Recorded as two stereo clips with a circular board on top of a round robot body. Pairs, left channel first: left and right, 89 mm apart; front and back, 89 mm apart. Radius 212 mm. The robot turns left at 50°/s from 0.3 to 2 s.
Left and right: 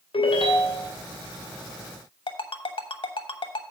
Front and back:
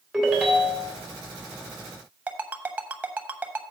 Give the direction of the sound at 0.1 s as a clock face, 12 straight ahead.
9 o'clock.